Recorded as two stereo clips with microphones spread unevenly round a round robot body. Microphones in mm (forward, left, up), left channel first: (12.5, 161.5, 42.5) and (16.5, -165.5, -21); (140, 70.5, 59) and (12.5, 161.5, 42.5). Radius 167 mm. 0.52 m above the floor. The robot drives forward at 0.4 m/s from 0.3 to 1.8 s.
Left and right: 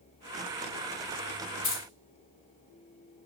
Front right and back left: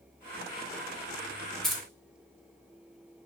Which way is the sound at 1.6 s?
60° left.